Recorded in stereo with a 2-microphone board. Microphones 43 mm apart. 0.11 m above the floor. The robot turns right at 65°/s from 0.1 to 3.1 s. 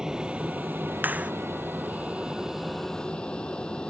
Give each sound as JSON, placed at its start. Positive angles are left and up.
{"t": 0.0, "sound": "an aircraft", "side_deg": -15}
{"t": 1.0, "sound": "a clap", "side_deg": -45}